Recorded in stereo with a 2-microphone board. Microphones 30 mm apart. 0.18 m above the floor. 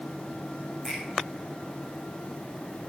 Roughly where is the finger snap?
Centre.